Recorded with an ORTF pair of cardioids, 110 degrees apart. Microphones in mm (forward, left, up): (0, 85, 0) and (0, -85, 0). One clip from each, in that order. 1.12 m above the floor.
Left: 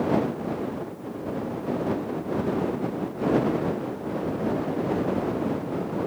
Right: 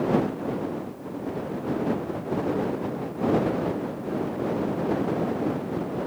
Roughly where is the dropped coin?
No dropped coin in this recording.